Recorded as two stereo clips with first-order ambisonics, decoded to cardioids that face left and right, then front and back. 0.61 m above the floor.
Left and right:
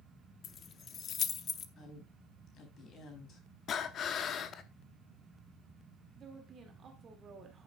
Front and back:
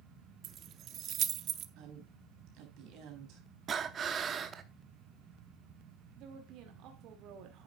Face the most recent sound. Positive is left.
turn(degrees=-150)